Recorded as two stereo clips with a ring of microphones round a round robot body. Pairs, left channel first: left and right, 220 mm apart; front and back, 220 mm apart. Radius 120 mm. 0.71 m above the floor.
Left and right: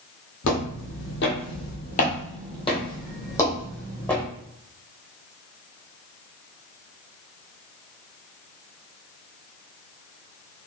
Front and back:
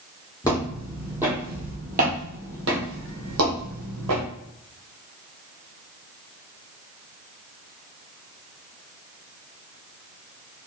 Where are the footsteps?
75° left, 1.2 m; by 4.2 s 175° left, 1.8 m.